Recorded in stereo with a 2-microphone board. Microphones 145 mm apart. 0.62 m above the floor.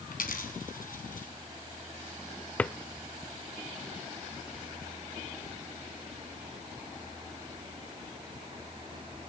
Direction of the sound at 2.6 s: 10° left (ahead or behind).